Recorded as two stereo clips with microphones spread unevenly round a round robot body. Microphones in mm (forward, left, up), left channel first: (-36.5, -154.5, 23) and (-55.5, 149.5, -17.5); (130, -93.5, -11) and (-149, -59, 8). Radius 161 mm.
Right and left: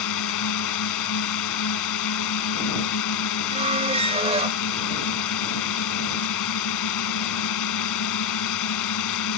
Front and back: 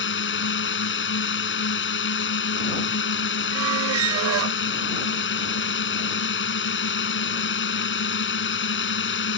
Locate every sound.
0.0 s a drone: 50° right
3.5 s a squeak: 150° left